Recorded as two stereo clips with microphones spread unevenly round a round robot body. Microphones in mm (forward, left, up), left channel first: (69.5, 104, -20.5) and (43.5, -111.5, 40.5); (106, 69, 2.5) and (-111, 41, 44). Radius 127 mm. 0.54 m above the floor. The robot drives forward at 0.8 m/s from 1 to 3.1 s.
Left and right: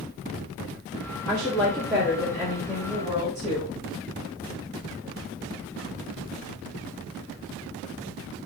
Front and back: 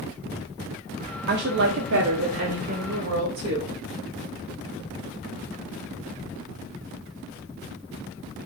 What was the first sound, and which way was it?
A woman speaking, 150° left.